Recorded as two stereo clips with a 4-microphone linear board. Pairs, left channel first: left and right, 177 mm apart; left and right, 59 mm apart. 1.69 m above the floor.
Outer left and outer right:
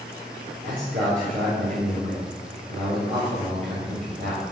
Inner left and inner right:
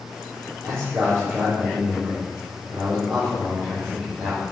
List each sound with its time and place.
0.6 s a man speaking: 45° right (ahead or behind), 4 m